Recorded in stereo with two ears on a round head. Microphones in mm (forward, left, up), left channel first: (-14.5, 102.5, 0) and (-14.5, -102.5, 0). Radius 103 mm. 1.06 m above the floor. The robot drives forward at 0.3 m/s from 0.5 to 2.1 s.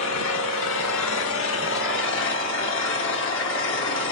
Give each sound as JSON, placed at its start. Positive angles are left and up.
{"t": 0.0, "sound": "an engine running", "side_deg": 60, "distance_m": 1.1}